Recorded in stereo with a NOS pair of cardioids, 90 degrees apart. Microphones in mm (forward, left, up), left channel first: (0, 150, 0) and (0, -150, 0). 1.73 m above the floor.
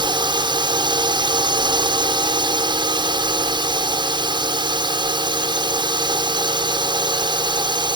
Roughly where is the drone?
Ahead.